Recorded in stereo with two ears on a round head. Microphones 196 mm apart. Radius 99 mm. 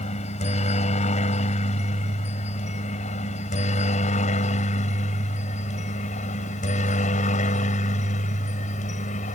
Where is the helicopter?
30° left (ahead or behind); by 9.3 s 35° left (ahead or behind).